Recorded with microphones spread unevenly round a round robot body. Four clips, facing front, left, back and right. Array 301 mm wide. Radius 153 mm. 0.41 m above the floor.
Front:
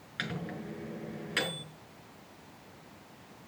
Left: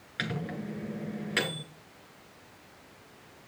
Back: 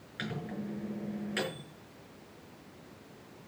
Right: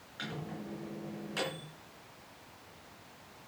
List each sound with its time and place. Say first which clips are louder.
0.2 s a microwave: left 6 dB, even; 50° left, 6 m